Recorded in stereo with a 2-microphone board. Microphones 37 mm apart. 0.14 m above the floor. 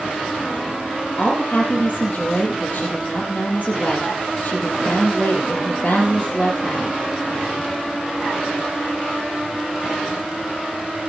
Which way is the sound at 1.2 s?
30° left (ahead or behind).